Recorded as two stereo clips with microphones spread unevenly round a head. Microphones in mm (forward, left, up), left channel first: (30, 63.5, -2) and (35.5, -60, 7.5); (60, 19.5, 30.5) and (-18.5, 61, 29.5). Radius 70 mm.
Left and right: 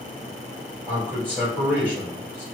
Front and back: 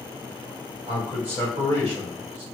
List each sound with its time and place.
0.9 s a man speaking: 170° left, 1.5 m